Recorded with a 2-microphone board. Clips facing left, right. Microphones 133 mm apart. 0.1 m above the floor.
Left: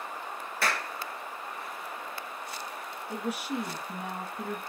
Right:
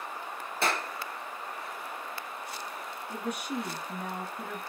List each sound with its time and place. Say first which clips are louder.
0.6 s a clap: right 1 dB; 25° right (ahead or behind), 1.3 m
3.1 s a woman speaking: left 2 dB; 5° left (ahead or behind), 1.2 m